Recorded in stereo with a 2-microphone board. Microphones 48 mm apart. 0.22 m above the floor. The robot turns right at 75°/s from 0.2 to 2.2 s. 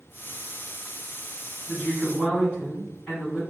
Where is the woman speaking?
90° left, 1.8 m; by 3.4 s 130° left, 1.8 m.